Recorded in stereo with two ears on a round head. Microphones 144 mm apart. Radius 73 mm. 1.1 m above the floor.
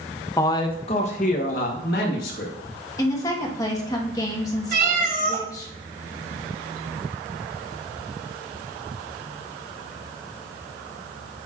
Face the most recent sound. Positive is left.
turn(degrees=-60)  # may be behind; listen again after turning